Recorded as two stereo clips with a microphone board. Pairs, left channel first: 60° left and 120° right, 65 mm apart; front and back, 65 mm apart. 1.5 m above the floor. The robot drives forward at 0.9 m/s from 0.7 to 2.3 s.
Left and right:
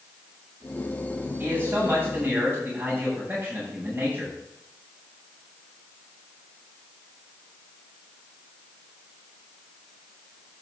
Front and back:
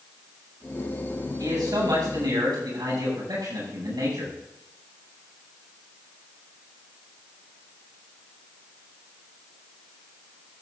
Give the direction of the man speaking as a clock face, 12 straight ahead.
6 o'clock.